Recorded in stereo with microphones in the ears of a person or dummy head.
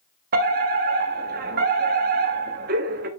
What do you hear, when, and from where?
0.3 s a fire alarm: 50° right (ahead or behind), 1.2 m